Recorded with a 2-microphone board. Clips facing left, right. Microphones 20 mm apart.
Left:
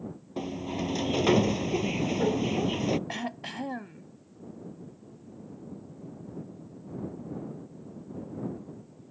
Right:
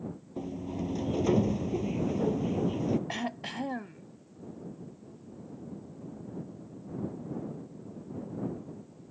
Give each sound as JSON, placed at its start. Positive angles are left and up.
{"t": 0.4, "sound": "a sliding door", "side_deg": 65}
{"t": 3.1, "sound": "throat clearing", "side_deg": 5}